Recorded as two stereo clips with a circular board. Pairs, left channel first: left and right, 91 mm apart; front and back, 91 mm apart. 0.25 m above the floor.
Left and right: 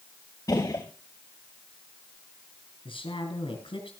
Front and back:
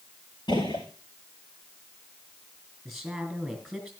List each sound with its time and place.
0.5 s a gunshot: 40° left, 5 m
2.9 s a woman speaking: 90° left, 3.5 m